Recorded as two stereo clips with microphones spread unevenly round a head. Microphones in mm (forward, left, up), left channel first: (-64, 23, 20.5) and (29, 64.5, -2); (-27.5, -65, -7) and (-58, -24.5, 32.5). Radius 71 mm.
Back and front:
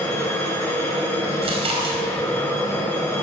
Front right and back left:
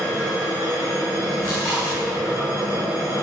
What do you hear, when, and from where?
0.0 s a machine running: 140° left, 3 m
1.4 s chewing: 50° left, 4.5 m